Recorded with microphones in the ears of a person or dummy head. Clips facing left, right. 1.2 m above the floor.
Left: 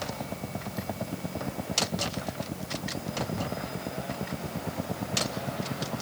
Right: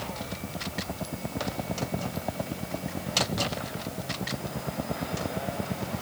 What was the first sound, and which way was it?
Only background noise.